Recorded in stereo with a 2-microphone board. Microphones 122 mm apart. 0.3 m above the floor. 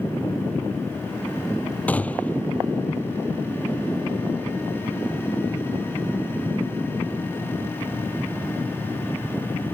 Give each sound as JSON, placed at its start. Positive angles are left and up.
{"t": 1.9, "sound": "a gunshot", "side_deg": 10}